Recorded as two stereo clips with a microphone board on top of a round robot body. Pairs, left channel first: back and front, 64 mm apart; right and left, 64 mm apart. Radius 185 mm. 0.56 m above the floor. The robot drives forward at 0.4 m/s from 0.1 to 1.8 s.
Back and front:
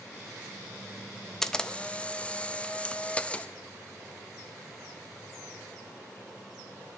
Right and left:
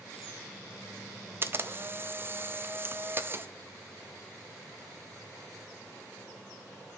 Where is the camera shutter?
100° left, 0.8 m; by 3.5 s 120° left, 0.9 m.